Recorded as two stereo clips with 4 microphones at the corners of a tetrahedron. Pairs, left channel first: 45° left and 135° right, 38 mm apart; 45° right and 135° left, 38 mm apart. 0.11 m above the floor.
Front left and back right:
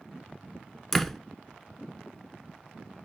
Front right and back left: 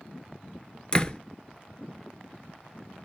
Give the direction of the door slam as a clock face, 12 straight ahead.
1 o'clock.